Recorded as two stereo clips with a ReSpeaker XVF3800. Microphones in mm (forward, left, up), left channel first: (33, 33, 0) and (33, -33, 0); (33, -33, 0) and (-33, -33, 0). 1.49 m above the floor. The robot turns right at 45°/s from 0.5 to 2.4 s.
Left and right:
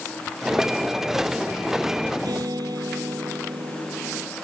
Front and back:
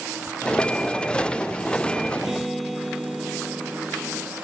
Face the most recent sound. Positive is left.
turn(degrees=-90)